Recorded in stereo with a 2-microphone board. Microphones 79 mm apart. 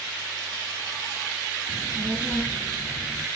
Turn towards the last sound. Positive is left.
turn(degrees=0)  # may be behind; listen again after turning